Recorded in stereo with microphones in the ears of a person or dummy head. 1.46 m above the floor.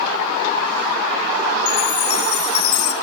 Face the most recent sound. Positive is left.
turn(degrees=75)  # may be behind; listen again after turning